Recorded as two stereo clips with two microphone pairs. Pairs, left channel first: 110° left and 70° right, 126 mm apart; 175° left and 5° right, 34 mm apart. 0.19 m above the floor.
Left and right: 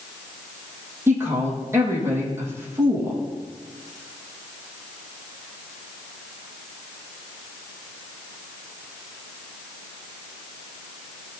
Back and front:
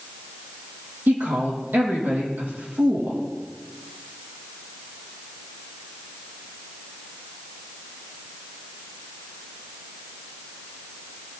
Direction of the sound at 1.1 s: Straight ahead.